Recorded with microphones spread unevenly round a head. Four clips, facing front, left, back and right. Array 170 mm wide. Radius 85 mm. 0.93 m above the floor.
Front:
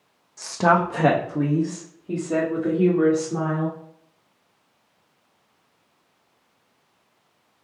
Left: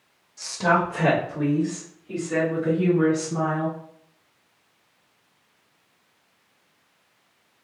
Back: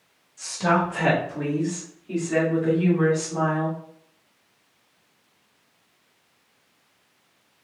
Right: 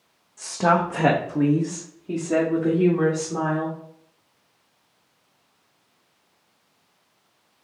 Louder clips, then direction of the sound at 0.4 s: Right 1 dB, front 3 dB; 15° right.